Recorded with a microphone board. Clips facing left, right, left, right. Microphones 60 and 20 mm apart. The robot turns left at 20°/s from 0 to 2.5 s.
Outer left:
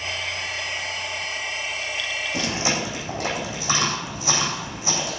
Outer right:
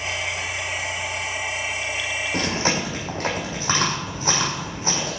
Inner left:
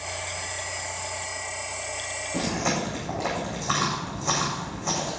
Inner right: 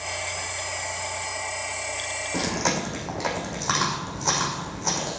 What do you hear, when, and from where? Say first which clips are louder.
2.3 s chewing: outer right 2 dB, inner right 1 dB; 45° right (ahead or behind), 6 m